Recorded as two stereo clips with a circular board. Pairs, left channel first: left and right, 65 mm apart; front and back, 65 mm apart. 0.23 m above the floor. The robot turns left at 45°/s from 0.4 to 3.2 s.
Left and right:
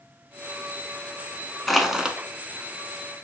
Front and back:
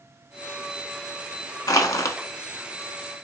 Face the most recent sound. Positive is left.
turn(degrees=-65)